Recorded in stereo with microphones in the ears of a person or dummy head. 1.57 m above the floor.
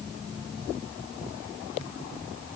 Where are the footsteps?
No footsteps in this recording.